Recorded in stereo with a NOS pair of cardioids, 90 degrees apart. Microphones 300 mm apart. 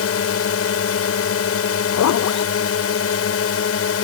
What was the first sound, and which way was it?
A drone, 50° left.